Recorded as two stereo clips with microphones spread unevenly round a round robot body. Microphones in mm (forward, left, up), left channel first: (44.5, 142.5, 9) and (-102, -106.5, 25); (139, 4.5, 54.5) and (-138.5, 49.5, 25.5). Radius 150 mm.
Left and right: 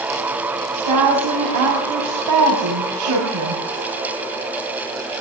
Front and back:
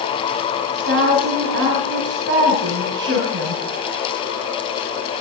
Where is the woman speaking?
135° right, 6 m.